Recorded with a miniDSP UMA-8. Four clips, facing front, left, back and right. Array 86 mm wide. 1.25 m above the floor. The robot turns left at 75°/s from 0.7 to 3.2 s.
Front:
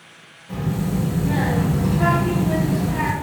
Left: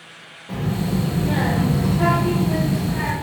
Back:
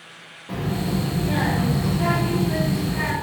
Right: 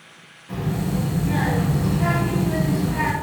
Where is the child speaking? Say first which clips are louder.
Left 2 dB, front 1 dB; 145° left, 1.3 m; by 3.1 s 40° right, 1.3 m.